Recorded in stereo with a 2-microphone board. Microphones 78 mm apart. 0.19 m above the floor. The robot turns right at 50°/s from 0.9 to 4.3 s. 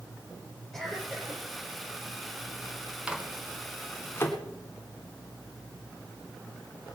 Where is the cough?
5° left (ahead or behind), 5.5 m; by 1.4 s 20° right (ahead or behind), 5.5 m.